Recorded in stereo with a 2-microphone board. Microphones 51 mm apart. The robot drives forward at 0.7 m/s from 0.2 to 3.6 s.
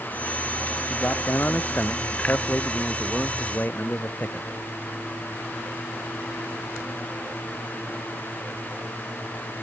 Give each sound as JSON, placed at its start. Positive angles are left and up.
{"t": 0.9, "sound": "a man speaking", "side_deg": 35}